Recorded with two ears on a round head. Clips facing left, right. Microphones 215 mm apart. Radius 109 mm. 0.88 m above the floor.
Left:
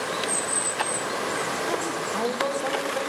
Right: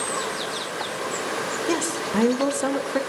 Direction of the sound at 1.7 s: 60° right (ahead or behind).